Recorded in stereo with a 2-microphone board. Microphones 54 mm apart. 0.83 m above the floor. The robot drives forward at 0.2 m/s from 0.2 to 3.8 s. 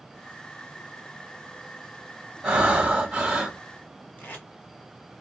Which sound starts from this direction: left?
Tape being pulled, at 4.2 s.